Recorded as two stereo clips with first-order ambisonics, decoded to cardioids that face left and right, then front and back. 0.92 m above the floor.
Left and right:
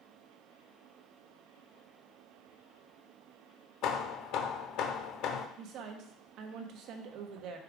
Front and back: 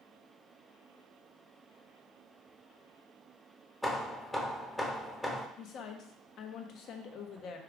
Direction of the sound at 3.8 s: 85° left.